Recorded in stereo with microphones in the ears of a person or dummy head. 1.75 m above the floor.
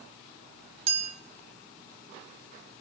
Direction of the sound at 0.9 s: 35° right (ahead or behind).